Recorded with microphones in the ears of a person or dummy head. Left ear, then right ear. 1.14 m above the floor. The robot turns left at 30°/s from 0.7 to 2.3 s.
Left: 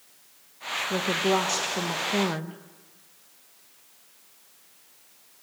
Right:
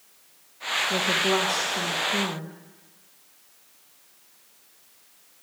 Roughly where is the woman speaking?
Behind.